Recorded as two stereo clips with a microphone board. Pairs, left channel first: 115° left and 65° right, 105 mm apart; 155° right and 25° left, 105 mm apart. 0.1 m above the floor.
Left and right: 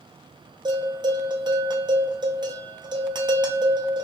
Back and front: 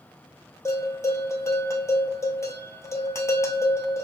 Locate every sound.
0.7 s a bell: 100° right, 0.7 m